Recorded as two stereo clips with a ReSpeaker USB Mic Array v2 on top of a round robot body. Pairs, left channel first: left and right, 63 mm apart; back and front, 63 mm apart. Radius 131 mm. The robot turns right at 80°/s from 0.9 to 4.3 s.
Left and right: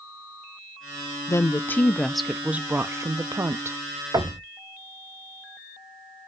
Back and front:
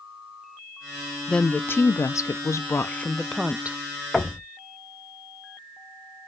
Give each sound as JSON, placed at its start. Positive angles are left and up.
{"t": 1.3, "sound": "a woman speaking", "azimuth_deg": 105, "distance_m": 0.5}
{"t": 4.1, "sound": "knocking", "azimuth_deg": -90, "distance_m": 0.8}